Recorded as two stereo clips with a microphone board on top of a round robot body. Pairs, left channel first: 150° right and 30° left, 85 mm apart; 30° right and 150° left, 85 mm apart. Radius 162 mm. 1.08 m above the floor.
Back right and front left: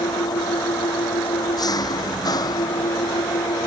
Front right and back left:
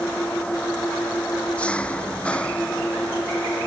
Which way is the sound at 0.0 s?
105° right.